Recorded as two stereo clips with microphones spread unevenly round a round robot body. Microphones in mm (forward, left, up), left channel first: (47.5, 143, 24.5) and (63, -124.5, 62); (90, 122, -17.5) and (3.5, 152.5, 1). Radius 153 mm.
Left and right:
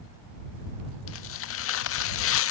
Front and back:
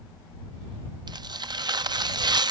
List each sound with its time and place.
1.1 s tearing paper: 115° left